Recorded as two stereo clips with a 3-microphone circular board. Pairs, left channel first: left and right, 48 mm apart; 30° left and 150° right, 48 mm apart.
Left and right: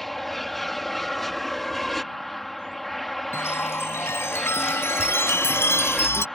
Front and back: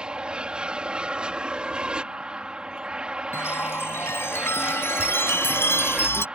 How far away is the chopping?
No chopping in this recording.